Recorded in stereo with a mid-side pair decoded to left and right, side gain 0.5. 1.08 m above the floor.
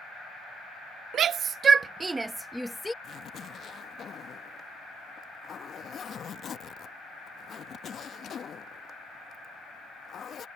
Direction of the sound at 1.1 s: 55° right.